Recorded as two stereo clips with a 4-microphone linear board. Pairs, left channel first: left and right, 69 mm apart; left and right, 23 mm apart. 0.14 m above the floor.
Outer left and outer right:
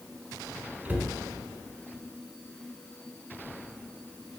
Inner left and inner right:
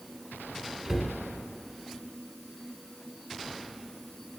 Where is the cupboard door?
25° right (ahead or behind), 0.7 m.